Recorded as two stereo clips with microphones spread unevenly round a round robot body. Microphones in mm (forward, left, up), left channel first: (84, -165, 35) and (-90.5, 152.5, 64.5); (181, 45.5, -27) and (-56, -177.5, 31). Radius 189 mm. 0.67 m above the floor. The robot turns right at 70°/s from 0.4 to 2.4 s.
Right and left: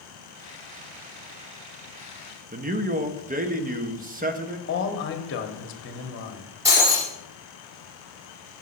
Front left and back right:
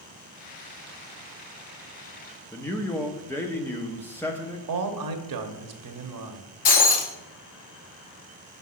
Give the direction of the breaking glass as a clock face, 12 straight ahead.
11 o'clock.